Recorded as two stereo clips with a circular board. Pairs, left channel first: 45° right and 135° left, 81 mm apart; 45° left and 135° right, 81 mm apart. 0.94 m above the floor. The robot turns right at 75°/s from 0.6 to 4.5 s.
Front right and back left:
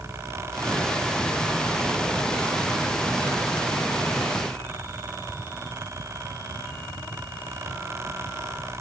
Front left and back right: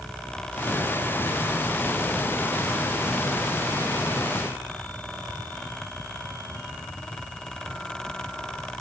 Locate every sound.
Only background noise.